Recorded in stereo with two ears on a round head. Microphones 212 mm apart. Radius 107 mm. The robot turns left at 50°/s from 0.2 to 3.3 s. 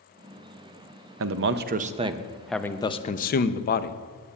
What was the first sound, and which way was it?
A man speaking, 115° right.